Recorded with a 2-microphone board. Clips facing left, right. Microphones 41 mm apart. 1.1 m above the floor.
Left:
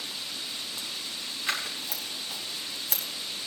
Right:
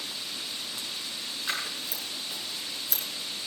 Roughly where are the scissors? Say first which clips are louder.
Left 2 dB; left.